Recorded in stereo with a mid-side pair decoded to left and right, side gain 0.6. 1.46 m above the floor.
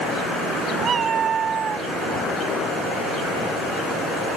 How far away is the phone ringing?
I don't hear a phone ringing.